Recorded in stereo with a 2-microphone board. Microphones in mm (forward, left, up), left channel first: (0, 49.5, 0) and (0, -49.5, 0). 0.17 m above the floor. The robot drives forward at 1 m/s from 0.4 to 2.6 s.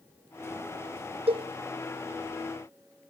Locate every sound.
1.3 s a cowbell: 80° right, 1.2 m; by 1.5 s 75° right (ahead or behind), 1.2 m